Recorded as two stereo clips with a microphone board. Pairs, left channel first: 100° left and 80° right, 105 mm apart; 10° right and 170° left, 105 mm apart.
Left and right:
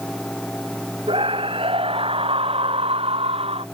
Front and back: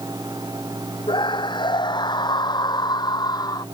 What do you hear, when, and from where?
1.1 s a scream: 50° right; by 3.6 s 60° right